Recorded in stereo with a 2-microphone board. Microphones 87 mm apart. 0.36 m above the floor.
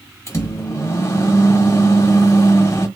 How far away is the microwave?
About 1.0 m.